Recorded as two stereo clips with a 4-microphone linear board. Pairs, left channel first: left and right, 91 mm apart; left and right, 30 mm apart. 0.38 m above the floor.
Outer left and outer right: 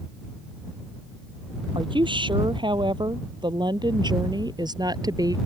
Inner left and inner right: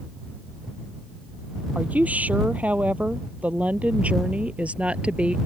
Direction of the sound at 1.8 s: 65° right (ahead or behind).